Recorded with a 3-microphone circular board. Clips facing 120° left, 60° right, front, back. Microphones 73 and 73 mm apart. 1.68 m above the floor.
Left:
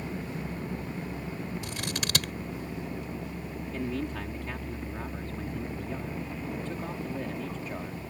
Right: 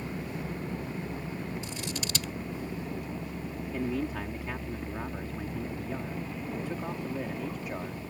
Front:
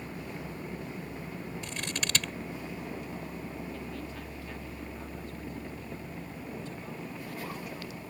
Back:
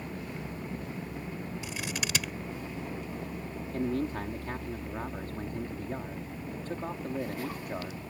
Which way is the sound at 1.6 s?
100° left.